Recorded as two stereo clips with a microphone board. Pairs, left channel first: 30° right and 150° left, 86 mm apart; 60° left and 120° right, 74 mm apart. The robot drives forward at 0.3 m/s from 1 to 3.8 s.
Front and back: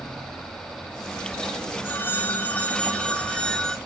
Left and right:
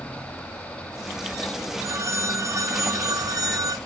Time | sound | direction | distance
1.8 | a phone ringing | 85° right | 1.7 m